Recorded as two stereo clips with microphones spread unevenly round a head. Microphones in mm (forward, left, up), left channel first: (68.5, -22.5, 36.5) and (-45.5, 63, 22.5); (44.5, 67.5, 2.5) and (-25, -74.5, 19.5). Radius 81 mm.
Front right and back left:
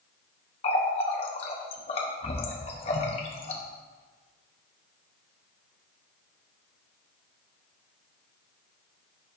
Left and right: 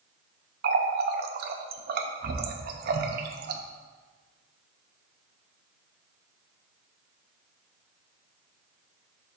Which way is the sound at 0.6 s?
90° right.